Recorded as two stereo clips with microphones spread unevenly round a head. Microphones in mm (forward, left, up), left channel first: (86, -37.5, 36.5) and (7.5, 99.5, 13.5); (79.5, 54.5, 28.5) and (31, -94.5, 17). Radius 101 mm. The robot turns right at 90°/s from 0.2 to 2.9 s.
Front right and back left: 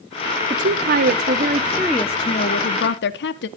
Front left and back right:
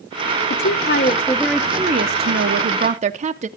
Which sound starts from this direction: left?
A woman speaking, at 0.5 s.